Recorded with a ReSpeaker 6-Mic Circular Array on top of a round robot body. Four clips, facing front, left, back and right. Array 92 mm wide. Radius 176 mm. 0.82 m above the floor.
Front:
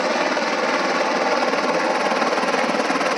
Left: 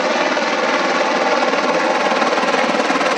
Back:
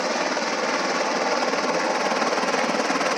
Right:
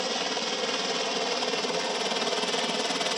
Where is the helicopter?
75° left; by 3.2 s 80° left.